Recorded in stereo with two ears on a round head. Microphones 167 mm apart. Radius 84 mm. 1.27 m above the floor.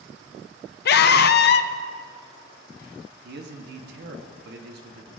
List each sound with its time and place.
0.8 s a scream: 55° left (ahead or behind), 0.6 m
3.2 s a man speaking: 60° right (ahead or behind), 1.1 m